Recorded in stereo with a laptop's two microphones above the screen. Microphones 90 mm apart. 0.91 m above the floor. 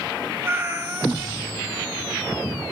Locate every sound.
0.4 s a cat meowing: 25° right (ahead or behind), 0.6 m